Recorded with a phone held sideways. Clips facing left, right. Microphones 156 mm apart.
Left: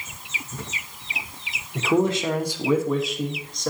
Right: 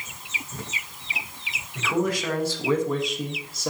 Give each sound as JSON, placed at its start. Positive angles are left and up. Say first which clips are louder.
{"t": 1.8, "sound": "a man speaking", "louder": "left 4 dB", "side_deg": 35, "distance_m": 1.0}